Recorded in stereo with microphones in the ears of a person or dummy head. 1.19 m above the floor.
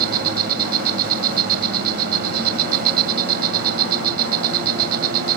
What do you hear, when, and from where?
0.0 s an insect: 50° right (ahead or behind)